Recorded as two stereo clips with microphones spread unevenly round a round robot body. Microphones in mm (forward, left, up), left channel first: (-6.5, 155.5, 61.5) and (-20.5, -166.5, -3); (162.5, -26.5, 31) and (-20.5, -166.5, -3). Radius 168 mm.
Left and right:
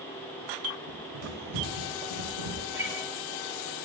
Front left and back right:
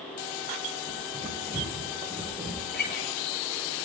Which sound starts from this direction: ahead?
A guitar, at 2.7 s.